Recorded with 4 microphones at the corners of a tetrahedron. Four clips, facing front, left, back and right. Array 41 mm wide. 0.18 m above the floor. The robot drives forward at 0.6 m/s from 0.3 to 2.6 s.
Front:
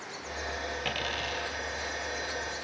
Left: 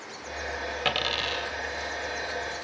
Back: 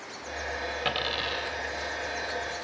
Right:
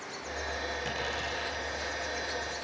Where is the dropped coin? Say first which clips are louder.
Left 7 dB, back 4 dB; 105° left, 2.5 m; by 1.5 s 115° left, 2.5 m.